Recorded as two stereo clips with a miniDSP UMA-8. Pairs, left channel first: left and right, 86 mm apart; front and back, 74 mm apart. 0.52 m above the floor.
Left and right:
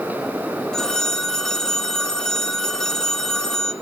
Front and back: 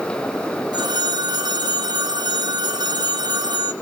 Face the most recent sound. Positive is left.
turn(degrees=175)